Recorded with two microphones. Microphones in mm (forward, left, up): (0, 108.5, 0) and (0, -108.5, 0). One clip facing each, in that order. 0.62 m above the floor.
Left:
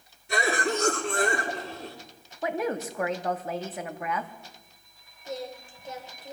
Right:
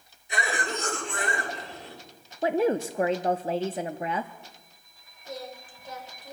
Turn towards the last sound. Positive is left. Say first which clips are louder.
# left 3 dB
turn(degrees=25)  # may be behind; listen again after turning